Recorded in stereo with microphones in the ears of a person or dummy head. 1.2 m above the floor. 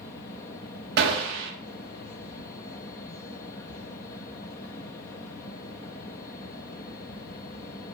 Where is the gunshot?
65° right (ahead or behind), 1.4 m.